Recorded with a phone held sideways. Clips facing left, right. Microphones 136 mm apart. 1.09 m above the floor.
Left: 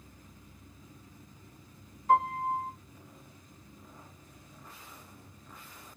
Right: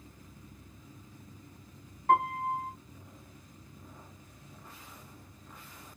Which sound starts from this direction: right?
A piano, at 2.1 s.